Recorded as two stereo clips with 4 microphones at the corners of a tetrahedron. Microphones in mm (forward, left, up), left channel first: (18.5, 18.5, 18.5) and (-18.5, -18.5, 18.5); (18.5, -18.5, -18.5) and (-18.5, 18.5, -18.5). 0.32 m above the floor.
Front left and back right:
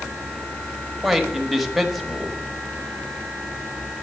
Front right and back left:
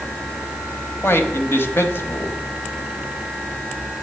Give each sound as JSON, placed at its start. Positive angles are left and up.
{"t": 1.0, "sound": "a man speaking", "azimuth_deg": -45, "distance_m": 1.2}